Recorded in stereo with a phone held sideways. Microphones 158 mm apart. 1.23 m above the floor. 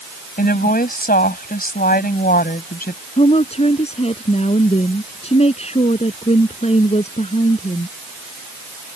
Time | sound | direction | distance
0.4 | a woman speaking | 65° left (ahead or behind) | ?
3.2 | a woman speaking | 40° left (ahead or behind) | ?